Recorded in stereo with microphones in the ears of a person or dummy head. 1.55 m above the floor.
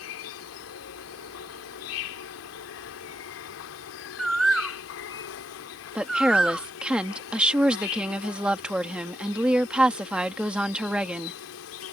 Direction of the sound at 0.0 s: 65° left (ahead or behind).